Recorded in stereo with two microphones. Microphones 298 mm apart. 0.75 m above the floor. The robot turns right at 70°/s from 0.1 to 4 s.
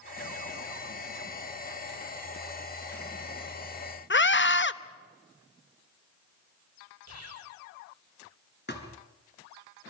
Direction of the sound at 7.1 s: 65° right (ahead or behind).